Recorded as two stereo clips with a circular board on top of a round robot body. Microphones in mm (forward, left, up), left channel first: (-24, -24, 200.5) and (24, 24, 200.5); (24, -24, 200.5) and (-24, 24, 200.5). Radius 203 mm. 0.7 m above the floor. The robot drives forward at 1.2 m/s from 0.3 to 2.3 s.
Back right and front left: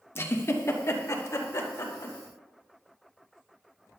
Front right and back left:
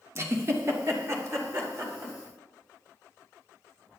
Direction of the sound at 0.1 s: 175° left.